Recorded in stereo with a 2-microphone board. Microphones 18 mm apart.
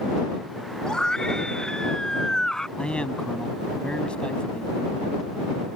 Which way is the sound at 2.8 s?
85° left.